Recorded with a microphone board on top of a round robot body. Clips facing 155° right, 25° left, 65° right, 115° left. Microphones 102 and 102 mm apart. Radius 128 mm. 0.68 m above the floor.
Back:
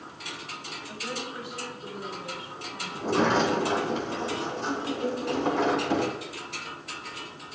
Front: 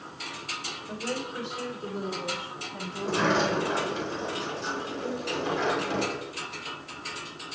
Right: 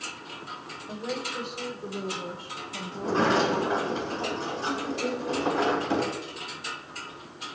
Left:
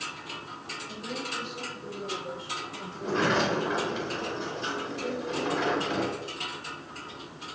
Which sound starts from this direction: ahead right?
A woman speaking, at 0.9 s.